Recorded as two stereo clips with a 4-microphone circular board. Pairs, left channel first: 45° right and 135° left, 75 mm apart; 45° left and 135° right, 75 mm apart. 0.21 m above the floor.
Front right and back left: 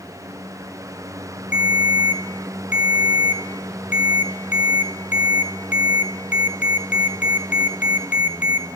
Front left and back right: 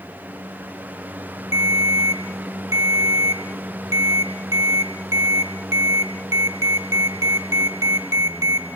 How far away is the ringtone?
About 1.0 m.